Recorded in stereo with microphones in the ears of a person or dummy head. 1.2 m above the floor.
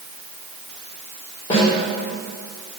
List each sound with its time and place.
1.5 s a snare drum: 30° left (ahead or behind), 3 m